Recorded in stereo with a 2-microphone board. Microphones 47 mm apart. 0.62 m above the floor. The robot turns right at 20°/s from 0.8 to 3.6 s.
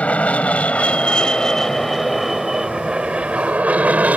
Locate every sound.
0.0 s an aircraft: 30° left (ahead or behind); by 4.2 s 30° right (ahead or behind)